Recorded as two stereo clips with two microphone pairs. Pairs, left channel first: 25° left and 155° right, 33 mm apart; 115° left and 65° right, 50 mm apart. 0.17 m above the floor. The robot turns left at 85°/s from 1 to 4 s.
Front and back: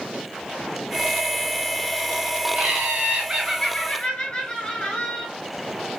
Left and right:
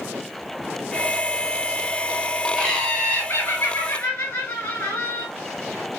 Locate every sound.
2.5 s laughter: 145° right, 1.9 m; by 5.3 s 90° left, 1.9 m